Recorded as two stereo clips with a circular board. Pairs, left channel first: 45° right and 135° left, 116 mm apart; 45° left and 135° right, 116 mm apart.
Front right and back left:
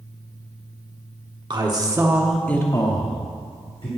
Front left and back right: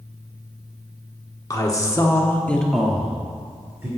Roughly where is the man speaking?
Left.